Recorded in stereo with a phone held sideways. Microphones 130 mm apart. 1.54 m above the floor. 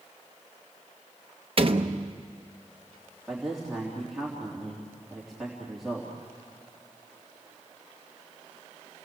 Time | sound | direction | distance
1.6 | a door slam | 45° right (ahead or behind) | 0.9 m
3.3 | a man speaking | centre (ahead or behind) | 3 m